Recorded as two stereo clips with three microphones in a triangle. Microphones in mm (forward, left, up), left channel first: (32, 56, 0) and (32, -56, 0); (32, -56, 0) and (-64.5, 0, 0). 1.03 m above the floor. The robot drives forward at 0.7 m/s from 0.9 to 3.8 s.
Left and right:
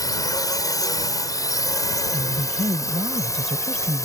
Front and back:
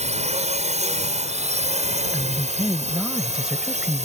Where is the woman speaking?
120° right; by 4.1 s 130° right.